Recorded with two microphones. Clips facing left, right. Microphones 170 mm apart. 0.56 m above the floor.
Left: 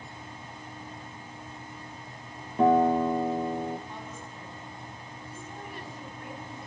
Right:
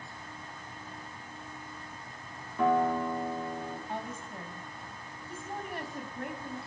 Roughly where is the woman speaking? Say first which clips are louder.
Right 3 dB; right.